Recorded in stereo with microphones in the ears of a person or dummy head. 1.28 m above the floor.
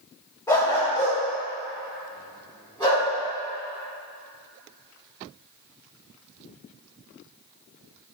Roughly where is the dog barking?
Centre.